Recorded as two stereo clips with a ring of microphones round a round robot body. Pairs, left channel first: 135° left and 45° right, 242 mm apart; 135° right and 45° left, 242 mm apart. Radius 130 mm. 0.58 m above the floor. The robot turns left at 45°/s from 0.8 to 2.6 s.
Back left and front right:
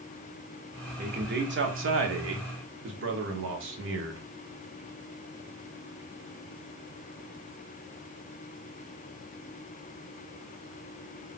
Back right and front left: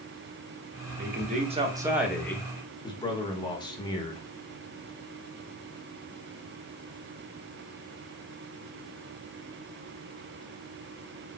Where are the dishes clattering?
No dishes clattering in this recording.